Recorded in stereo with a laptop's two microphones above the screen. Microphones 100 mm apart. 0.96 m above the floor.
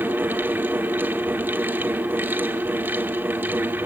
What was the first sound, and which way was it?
A fan, 20° right (ahead or behind).